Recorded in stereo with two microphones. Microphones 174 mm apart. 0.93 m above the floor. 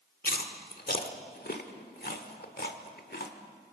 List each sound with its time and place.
0.2 s chewing: 65° left (ahead or behind), 1.3 m